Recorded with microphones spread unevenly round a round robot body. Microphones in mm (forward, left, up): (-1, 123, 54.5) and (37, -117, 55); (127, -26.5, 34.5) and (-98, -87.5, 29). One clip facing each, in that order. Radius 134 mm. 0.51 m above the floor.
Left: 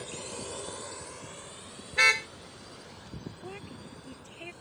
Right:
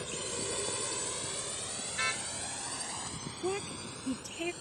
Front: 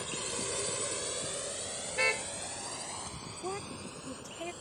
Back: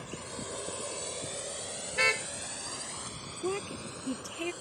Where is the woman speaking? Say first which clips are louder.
Right 8 dB, back 6 dB; 115° right.